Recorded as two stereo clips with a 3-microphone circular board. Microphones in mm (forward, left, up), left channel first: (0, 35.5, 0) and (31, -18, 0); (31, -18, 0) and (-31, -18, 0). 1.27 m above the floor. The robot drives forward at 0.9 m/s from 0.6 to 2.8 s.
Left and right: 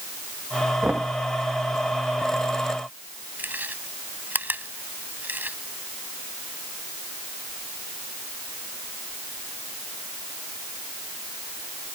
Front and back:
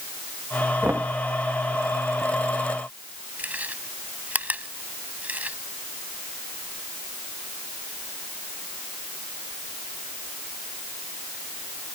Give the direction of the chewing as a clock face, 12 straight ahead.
4 o'clock.